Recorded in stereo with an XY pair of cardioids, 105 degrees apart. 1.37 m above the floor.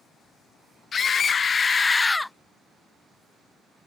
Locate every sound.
0.9 s a scream: 45° left; by 2.3 s straight ahead